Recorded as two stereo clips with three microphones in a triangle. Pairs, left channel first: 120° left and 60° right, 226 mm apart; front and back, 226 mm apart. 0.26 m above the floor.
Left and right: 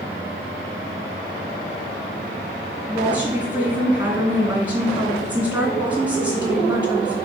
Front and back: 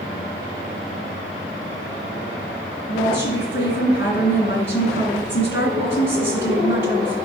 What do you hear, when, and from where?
2.9 s a woman speaking: 20° left, 2.5 m